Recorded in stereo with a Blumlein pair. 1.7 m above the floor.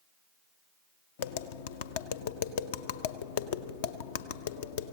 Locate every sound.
1.2 s tapping: 55° left, 0.5 m